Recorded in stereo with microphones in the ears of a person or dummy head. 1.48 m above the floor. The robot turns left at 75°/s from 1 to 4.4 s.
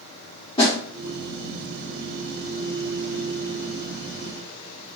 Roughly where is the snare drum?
Left.